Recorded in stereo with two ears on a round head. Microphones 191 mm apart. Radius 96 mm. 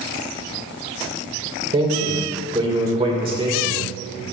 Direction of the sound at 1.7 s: 25° right (ahead or behind).